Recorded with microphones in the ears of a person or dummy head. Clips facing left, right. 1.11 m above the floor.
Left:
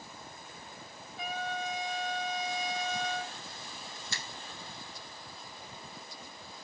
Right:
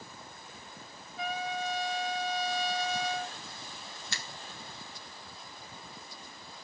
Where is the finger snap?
55° right (ahead or behind), 0.6 m.